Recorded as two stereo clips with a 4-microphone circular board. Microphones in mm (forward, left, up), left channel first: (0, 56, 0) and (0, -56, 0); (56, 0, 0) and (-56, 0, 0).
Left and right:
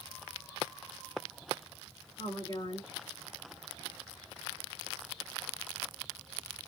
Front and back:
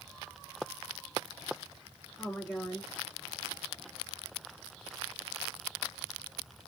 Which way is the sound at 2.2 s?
80° left.